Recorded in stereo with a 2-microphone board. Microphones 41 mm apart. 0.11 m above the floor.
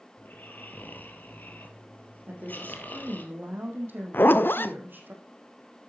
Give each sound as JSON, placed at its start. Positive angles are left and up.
{"t": 0.2, "sound": "snoring", "side_deg": 50, "distance_m": 2.5}
{"t": 2.3, "sound": "a woman speaking", "side_deg": -55, "distance_m": 4.5}
{"t": 4.1, "sound": "a zipper", "side_deg": 60, "distance_m": 0.6}